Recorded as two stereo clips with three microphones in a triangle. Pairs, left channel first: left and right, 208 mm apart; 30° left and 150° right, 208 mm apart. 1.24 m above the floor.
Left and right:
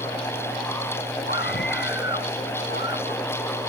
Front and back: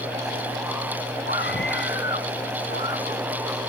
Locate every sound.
1.3 s a scream: 60° left